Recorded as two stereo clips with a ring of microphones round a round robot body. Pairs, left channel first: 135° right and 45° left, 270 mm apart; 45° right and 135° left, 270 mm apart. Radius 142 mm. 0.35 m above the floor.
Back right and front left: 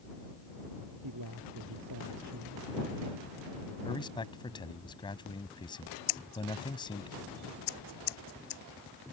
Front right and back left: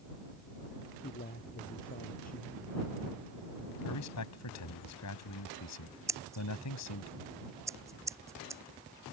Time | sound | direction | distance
1.0 | a man speaking | 15° left | ?
3.9 | a man speaking | 60° right | ?
6.1 | scissors | 145° right | ?